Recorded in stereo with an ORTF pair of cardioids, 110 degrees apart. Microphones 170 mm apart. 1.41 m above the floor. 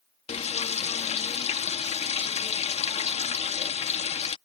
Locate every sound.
0.3 s frying: 40° left